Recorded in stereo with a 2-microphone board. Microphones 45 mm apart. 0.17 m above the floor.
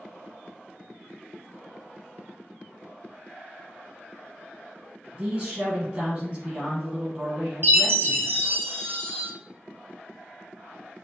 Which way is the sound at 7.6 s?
55° right (ahead or behind).